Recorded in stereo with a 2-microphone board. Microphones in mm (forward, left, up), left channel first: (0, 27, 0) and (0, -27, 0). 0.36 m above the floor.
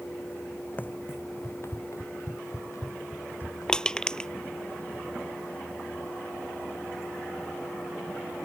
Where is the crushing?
15° left (ahead or behind).